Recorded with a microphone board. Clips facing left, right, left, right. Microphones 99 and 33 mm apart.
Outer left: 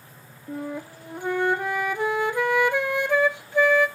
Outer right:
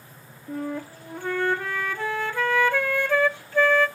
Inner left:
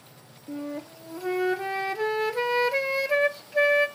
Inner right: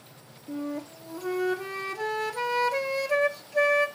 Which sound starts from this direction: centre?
A flute, at 0.5 s.